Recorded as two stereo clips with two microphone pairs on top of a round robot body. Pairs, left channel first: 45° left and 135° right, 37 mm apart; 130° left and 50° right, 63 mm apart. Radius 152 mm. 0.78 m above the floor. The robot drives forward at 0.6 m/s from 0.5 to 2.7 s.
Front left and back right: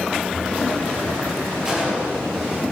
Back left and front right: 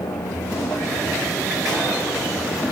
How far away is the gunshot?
About 5 m.